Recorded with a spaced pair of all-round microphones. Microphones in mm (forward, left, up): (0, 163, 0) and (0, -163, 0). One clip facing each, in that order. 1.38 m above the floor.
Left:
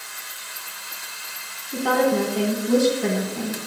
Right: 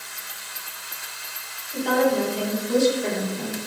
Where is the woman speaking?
65° left (ahead or behind), 1.6 m.